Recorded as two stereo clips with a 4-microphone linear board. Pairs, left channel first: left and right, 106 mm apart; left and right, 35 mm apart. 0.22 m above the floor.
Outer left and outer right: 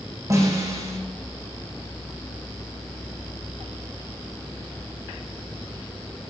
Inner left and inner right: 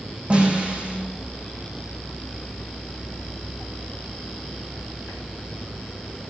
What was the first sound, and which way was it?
A snare drum, 30° right (ahead or behind).